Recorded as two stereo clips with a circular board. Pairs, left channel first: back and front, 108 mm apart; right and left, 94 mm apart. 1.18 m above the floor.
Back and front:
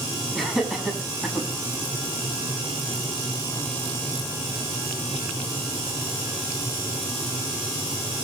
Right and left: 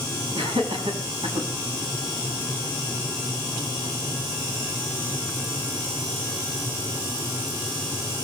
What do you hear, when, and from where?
0.3 s laughter: 90° left, 8 m; by 1.5 s 85° left, 7 m